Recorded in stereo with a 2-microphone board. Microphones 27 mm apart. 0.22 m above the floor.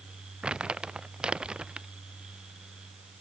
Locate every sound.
0.4 s crumpling: 35° right (ahead or behind)